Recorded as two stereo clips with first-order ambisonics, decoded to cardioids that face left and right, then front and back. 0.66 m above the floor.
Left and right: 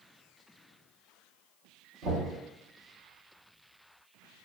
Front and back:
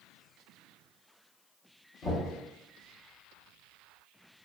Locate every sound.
2.0 s knocking: 55° right, 1.3 m